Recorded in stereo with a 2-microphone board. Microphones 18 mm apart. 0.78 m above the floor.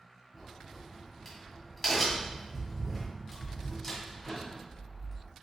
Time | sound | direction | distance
0.3 | a crack | 20° left (ahead or behind) | 1.6 m